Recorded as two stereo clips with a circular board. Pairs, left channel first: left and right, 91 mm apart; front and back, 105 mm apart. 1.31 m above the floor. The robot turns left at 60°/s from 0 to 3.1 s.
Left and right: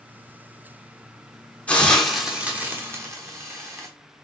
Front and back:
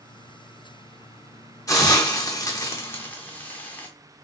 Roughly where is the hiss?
Ahead left.